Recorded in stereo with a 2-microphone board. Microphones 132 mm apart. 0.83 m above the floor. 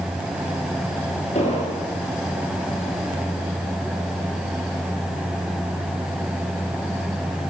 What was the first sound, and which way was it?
An explosion, 50° left (ahead or behind).